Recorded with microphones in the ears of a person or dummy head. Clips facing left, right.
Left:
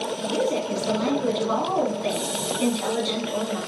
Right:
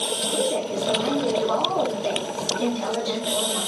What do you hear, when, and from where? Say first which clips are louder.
0.3 s a woman speaking: left 1 dB; 30° left (ahead or behind), 1.7 m